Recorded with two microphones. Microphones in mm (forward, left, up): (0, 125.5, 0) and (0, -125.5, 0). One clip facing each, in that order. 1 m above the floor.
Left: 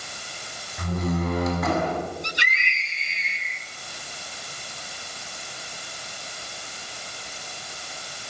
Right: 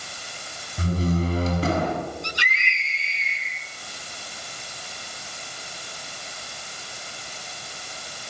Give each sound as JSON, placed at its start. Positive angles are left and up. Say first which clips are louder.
{"t": 0.8, "sound": "a door slam", "louder": "right 2 dB", "side_deg": -35, "distance_m": 6.5}
{"t": 2.2, "sound": "a scream", "louder": "even", "side_deg": 20, "distance_m": 8.0}